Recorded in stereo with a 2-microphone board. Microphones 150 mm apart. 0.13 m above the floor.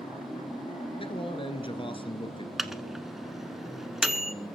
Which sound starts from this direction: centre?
A microwave, at 2.6 s.